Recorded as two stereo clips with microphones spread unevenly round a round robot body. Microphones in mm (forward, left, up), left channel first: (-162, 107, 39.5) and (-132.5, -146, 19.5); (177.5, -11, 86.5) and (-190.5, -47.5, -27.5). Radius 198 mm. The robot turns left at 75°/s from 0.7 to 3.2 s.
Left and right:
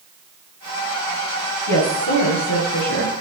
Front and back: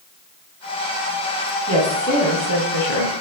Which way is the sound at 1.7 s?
115° left.